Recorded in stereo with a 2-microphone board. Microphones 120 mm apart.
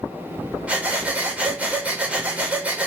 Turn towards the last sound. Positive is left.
turn(degrees=-10)  # may be behind; listen again after turning